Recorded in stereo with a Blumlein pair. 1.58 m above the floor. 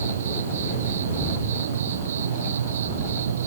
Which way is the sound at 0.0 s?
65° right.